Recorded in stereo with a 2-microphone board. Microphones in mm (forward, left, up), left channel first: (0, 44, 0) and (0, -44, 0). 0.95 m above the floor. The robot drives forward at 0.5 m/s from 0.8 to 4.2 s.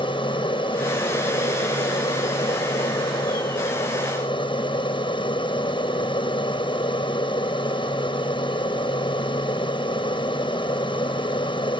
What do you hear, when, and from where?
0.0 s an aircraft: 70° left (ahead or behind)